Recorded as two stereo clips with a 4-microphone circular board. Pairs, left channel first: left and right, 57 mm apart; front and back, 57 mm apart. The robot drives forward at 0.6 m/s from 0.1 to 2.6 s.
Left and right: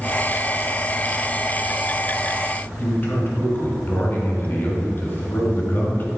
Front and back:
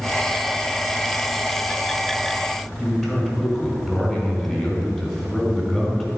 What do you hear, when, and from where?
2.8 s a man speaking: 95° left, 1.9 m